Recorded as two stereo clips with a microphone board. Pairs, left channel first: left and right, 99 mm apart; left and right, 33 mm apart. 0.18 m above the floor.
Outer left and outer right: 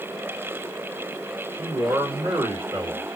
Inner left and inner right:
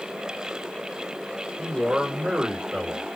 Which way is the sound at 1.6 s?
40° right (ahead or behind).